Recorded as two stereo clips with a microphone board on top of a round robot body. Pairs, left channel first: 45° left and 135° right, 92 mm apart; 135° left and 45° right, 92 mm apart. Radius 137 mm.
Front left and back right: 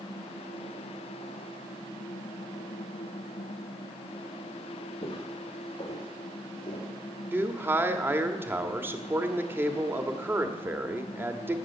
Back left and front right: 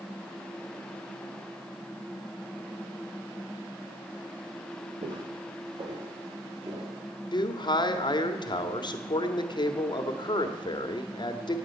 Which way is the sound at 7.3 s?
160° left.